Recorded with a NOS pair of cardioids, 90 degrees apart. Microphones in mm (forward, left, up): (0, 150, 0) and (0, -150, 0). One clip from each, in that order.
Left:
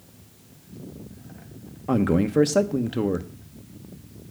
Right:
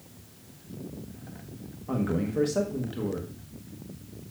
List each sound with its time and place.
1.9 s a man speaking: 55° left, 0.9 m